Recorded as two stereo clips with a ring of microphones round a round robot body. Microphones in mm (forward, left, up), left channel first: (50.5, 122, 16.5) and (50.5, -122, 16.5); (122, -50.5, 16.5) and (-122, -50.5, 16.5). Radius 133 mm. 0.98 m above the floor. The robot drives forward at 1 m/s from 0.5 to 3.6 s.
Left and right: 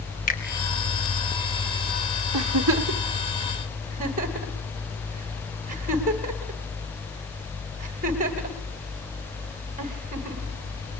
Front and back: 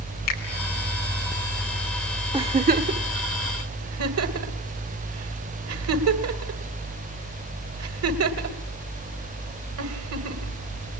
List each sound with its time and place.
0.3 s a finger snap: 35° left, 4.5 m
2.3 s a giggle: 110° right, 1.0 m; by 10.5 s 155° right, 1.8 m